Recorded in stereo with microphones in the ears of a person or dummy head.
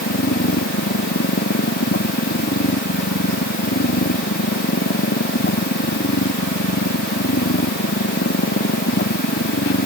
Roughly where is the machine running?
Left.